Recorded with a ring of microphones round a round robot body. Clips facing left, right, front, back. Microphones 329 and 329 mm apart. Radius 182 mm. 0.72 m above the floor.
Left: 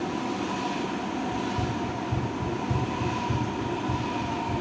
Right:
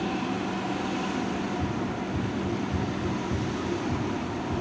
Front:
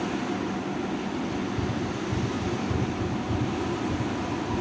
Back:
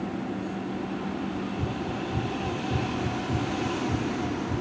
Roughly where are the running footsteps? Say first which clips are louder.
Even, front 2 dB; ahead left.